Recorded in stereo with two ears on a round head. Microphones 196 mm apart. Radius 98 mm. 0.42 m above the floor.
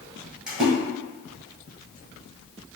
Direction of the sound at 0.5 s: 5° right (ahead or behind).